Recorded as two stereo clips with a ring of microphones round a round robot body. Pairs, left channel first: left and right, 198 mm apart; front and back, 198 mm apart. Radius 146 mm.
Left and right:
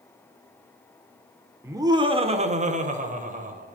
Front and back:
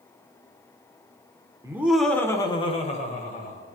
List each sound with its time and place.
1.6 s laughter: 140° right, 0.8 m; by 3.8 s 45° right, 1.6 m